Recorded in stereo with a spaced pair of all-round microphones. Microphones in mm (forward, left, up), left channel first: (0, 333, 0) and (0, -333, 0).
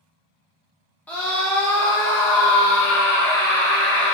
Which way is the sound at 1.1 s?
Centre (ahead or behind).